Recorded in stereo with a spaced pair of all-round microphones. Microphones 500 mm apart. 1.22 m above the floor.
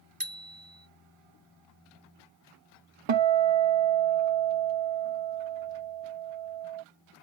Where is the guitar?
55° right (ahead or behind).